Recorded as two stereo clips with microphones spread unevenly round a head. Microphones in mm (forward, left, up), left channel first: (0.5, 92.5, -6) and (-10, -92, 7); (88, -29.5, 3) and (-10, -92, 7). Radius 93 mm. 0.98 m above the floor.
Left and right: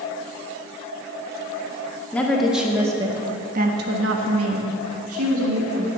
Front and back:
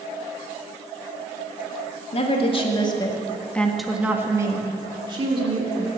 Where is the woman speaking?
5° left, 2.5 m; by 5.9 s 110° right, 3 m.